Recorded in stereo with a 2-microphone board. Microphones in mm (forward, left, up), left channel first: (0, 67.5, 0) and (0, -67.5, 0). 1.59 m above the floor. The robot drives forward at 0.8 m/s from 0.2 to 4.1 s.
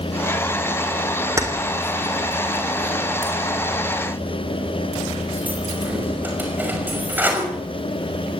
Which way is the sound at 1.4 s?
20° right (ahead or behind).